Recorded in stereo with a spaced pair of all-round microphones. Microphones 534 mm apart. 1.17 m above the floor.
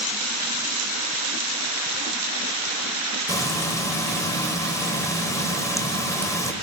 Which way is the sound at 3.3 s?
5° left (ahead or behind).